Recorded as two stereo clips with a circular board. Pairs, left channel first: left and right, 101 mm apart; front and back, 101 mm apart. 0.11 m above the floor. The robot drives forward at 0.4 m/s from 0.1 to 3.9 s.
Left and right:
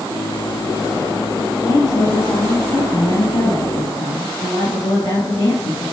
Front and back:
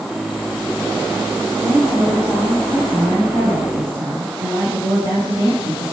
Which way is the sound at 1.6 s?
120° left.